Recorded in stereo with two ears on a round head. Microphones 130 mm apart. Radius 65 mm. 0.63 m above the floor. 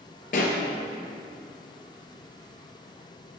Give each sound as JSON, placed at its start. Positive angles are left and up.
{"t": 0.3, "sound": "a pop", "side_deg": 60, "distance_m": 2.0}